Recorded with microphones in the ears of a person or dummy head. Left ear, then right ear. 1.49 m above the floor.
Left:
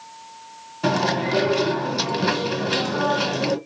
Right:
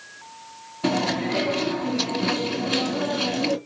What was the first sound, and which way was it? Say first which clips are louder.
Chewing: left 3 dB; 50° left (ahead or behind).